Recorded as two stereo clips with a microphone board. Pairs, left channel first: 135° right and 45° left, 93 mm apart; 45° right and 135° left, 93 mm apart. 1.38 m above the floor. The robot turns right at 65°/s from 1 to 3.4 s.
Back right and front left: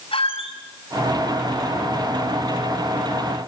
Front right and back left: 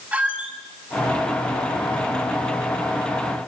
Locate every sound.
0.1 s a squeak: 150° right, 6 m